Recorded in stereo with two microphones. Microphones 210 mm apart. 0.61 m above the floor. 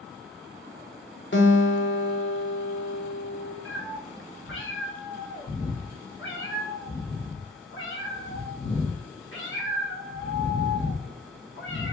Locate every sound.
1.3 s a guitar: 65° left (ahead or behind), 0.7 m
3.6 s a cat meowing: 70° left (ahead or behind), 1.2 m